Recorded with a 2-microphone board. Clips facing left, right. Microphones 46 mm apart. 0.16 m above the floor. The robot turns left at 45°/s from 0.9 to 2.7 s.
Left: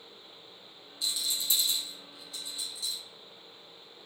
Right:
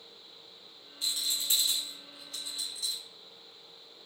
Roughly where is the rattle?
Right.